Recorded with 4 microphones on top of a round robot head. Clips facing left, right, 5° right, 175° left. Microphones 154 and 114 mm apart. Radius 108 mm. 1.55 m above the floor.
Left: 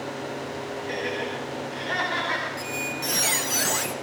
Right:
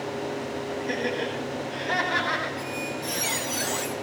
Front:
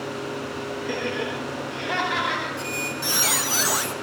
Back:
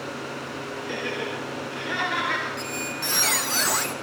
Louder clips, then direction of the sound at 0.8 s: Right 2 dB, front 3 dB; 35° right.